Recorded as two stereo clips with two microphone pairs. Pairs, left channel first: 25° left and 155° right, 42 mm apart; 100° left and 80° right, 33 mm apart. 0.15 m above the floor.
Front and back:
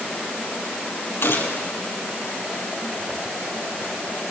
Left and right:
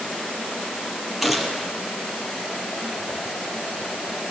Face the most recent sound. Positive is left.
turn(degrees=10)